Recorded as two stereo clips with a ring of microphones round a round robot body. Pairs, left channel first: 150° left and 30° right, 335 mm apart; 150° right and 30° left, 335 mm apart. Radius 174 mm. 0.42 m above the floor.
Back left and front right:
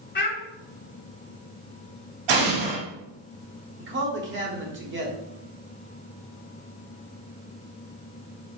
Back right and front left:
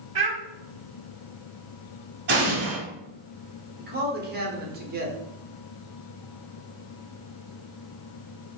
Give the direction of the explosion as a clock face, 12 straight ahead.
1 o'clock.